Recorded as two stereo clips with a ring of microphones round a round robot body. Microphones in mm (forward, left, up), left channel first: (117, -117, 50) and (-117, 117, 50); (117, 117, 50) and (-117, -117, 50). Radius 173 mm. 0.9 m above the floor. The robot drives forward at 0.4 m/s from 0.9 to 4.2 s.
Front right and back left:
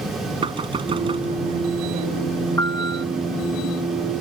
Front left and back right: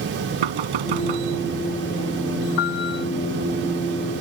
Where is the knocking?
150° right.